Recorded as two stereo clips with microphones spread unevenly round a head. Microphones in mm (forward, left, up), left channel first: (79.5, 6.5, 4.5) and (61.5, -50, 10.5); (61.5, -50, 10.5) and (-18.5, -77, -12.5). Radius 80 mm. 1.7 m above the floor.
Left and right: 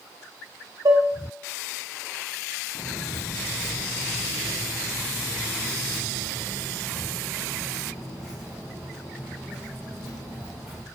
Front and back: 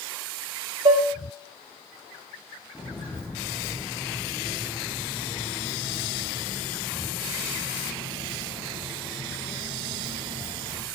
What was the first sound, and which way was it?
Dishes clattering, 130° right.